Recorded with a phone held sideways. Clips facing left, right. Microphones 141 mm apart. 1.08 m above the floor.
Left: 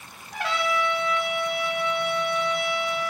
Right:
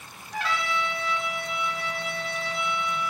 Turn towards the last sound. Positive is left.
turn(degrees=65)  # may be behind; listen again after turning